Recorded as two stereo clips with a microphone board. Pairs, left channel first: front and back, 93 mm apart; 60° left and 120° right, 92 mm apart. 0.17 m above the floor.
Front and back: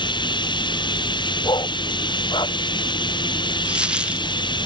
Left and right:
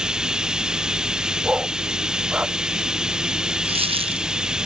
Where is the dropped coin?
100° right.